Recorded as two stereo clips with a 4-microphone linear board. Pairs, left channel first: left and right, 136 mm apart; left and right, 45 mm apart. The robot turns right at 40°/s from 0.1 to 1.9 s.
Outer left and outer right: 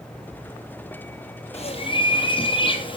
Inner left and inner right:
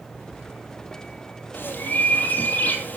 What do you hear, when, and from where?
1.5 s a bird: 50° left (ahead or behind), 3.5 m; by 3.0 s 40° left (ahead or behind), 3.5 m